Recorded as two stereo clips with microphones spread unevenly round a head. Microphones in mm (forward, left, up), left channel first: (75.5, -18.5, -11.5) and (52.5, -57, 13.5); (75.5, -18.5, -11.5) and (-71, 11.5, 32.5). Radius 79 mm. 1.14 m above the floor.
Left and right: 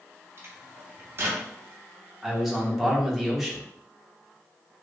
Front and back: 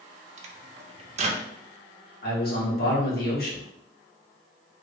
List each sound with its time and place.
0.4 s a microwave: 150° right, 0.5 m
2.2 s a man speaking: 35° right, 1.5 m